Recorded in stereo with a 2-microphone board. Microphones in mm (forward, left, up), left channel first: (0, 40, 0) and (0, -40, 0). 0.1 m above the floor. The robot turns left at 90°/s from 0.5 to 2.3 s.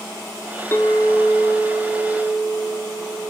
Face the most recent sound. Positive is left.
turn(degrees=-65)